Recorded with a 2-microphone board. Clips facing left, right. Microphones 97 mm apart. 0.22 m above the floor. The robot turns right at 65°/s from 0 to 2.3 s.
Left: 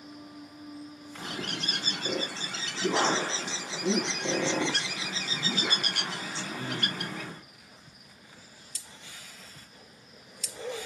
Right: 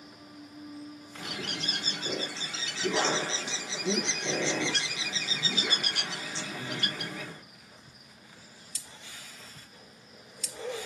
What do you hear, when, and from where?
1.2 s a bird: 40° left, 1.0 m; by 7.4 s 110° left, 1.0 m